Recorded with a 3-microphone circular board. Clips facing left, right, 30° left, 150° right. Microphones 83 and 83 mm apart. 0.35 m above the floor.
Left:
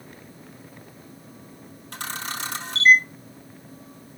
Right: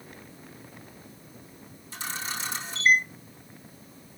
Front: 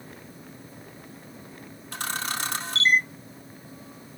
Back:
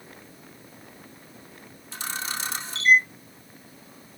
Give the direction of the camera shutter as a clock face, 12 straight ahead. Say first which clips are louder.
Left 3 dB, front 2 dB; 10 o'clock.